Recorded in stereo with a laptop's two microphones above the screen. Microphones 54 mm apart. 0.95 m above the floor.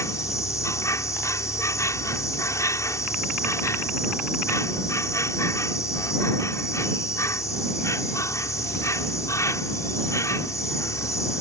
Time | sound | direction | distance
0.0 | an insect | 70° left (ahead or behind) | ?